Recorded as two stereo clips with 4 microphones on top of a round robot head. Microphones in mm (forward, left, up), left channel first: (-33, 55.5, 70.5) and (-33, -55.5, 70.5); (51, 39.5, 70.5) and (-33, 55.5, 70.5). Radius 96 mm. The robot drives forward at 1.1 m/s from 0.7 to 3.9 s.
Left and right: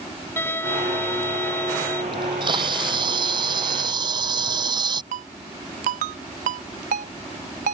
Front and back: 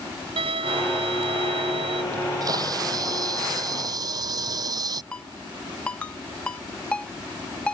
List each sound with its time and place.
0.4 s a violin: 160° left
2.1 s a camera shutter: 135° right; by 5.0 s 140° right
5.1 s a ringtone: 95° right